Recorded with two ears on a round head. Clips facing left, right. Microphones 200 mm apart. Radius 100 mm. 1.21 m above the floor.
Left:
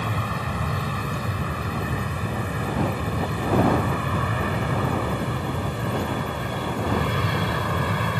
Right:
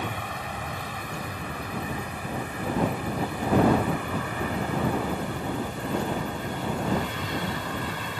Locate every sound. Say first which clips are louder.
0.0 s an aircraft: left 4 dB; 65° left (ahead or behind); by 8.2 s 50° left (ahead or behind)